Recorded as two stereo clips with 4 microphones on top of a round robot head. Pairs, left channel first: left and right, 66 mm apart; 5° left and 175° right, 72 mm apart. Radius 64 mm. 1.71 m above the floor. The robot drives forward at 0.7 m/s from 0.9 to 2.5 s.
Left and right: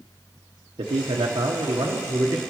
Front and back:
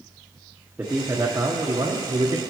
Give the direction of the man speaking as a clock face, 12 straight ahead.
3 o'clock.